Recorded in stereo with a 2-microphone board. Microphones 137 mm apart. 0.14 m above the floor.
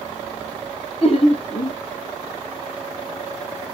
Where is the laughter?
45° left (ahead or behind), 2 m.